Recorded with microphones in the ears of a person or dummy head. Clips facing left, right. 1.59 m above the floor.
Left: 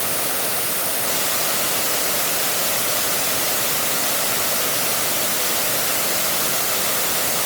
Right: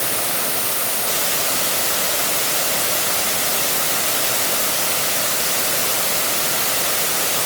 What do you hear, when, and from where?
Only background noise.